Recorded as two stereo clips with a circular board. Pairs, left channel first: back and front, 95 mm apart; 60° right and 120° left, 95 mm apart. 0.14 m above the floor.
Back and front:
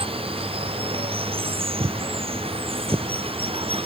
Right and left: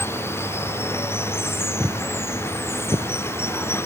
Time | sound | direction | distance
0.0 | running water | 5° left | ?
1.8 | footsteps | 30° left | ?